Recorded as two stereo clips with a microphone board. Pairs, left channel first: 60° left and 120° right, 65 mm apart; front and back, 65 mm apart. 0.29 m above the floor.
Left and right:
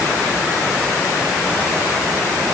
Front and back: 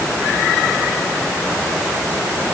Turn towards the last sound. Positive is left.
No sound to turn to.